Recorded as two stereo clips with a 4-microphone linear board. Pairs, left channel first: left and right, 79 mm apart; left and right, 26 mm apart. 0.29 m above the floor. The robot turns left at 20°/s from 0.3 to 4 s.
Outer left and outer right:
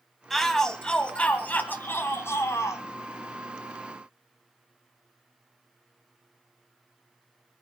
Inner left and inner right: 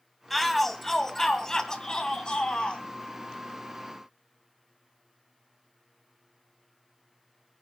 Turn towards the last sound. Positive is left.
turn(degrees=105)